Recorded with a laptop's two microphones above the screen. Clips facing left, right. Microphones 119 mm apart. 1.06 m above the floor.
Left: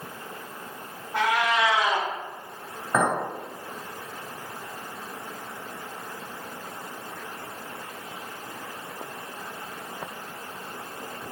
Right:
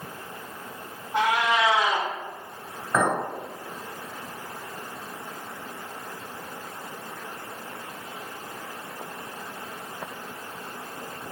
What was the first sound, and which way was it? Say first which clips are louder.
A cat meowing: right 1 dB; 20° right (ahead or behind).